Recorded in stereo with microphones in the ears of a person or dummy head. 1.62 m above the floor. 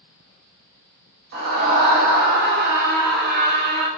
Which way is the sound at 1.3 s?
55° right (ahead or behind).